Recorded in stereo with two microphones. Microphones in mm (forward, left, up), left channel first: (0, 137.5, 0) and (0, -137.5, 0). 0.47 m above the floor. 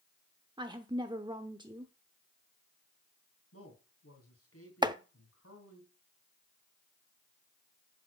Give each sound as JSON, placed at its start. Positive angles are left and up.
{"t": 0.6, "sound": "a woman speaking", "side_deg": -15, "distance_m": 0.8}
{"t": 3.5, "sound": "a man speaking", "side_deg": 60, "distance_m": 3.5}
{"t": 4.8, "sound": "chopping", "side_deg": -15, "distance_m": 0.6}